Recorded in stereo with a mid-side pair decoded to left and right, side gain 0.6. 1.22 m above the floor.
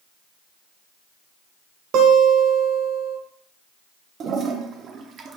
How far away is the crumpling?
I don't hear crumpling.